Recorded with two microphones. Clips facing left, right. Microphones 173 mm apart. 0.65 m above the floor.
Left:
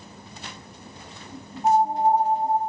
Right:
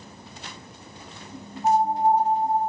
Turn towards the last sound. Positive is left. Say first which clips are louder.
# left 1 dB
turn(degrees=30)  # may be behind; listen again after turning